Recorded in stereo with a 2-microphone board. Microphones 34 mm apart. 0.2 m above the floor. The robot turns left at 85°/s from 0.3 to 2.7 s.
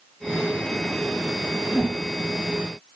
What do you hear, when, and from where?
1.7 s a whoosh: 60° left (ahead or behind), 7.5 m; by 2.0 s 80° left, 7.5 m